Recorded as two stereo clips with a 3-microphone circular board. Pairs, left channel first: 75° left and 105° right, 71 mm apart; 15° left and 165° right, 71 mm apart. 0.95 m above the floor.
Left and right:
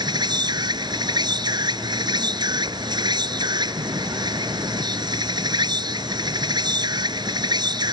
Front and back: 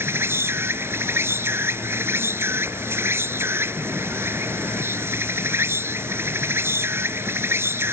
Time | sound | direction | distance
0.0 | an insect | 110° right | ?